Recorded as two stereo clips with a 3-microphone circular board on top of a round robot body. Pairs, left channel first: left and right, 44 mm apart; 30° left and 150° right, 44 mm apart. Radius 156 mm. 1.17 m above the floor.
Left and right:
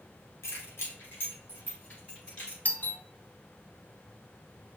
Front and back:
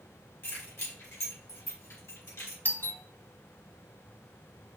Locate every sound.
0.4 s keys jangling: 70° left, 1.2 m; by 2.5 s 20° left, 2.5 m
2.6 s a doorbell: 50° left, 0.7 m